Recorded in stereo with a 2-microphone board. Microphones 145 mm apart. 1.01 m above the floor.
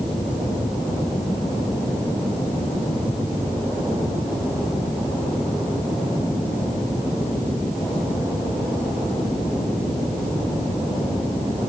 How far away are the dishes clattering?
No dishes clattering in this recording.